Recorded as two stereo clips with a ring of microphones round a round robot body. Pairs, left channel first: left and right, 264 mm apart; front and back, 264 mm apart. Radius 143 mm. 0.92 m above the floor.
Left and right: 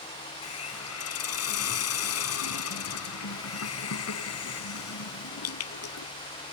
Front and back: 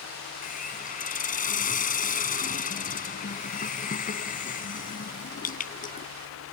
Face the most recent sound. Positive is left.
turn(degrees=60)